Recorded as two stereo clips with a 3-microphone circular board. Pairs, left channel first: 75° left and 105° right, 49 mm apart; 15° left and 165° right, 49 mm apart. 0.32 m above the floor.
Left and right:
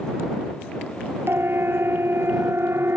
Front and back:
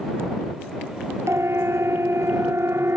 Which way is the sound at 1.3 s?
140° right.